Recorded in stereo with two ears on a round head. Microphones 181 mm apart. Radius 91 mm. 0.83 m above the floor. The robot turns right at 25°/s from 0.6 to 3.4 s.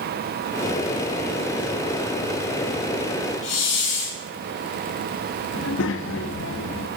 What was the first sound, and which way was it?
A hiss, 65° left (ahead or behind).